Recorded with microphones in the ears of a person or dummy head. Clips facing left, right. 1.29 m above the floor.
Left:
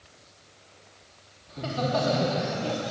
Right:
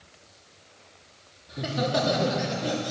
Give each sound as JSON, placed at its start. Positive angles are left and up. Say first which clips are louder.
{"t": 1.5, "sound": "laughter", "louder": "right 1 dB", "side_deg": -15, "distance_m": 3.5}